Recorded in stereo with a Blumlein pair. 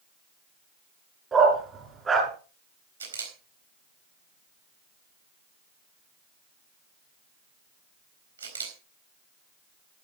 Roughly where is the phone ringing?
I don't hear a phone ringing.